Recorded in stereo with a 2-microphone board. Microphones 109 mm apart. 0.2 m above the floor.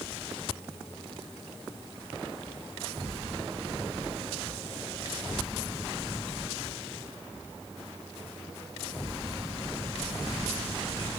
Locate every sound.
Only background noise.